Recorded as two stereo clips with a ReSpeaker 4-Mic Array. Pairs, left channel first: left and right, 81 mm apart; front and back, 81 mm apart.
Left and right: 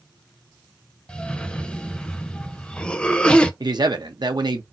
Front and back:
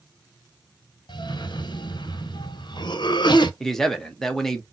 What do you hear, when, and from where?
1.1 s a cough: 15° left, 0.6 m
3.6 s a man speaking: 85° right, 0.7 m